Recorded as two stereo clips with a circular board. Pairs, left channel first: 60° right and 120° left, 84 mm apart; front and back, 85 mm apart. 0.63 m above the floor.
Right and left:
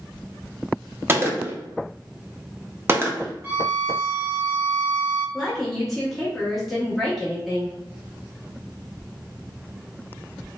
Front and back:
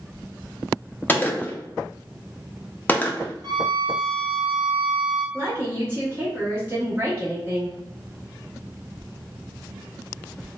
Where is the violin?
175° right, 1.6 m.